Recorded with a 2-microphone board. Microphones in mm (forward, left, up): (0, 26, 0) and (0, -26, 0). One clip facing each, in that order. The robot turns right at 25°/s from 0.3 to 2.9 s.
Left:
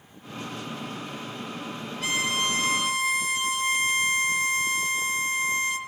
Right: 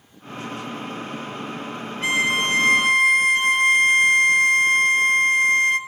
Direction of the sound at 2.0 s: 30° right (ahead or behind).